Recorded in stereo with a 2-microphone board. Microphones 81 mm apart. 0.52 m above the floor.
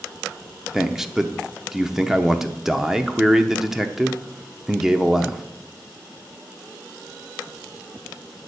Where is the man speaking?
5° right (ahead or behind), 0.7 m.